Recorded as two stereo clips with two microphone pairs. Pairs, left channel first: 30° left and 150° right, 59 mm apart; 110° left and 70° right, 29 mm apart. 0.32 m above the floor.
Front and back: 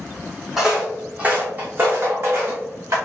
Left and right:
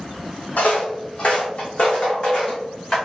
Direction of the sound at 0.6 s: 130° left.